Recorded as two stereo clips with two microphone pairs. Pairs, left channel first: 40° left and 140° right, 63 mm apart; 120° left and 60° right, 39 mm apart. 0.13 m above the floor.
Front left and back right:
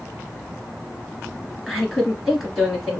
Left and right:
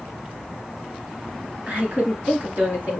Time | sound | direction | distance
1.7 | a woman speaking | 50° right | 1.9 m